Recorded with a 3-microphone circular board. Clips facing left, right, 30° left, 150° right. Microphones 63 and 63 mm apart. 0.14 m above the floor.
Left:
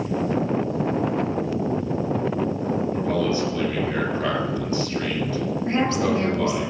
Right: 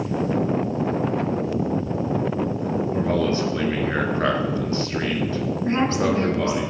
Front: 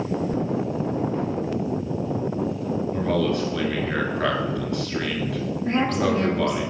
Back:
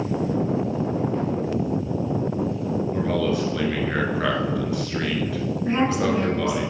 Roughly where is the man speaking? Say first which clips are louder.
Right 3 dB, front 1 dB; ahead right.